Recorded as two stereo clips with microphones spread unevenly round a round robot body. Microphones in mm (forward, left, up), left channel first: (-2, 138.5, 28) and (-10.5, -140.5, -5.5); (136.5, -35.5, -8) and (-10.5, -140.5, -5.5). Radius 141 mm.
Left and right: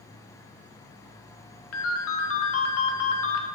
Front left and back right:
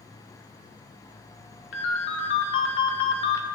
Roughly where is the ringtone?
Ahead left.